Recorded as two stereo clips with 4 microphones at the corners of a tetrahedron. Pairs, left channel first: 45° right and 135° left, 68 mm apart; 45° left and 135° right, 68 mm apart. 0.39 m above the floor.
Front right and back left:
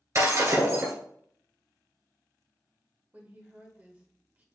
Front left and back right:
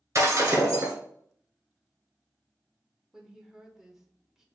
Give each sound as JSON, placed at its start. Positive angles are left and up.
{"t": 0.1, "sound": "breaking glass", "azimuth_deg": 175, "distance_m": 2.0}
{"t": 3.1, "sound": "a woman speaking", "azimuth_deg": 155, "distance_m": 1.0}